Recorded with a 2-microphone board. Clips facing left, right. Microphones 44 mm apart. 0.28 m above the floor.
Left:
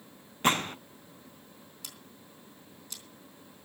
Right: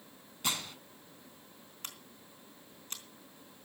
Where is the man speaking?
I don't hear a man speaking.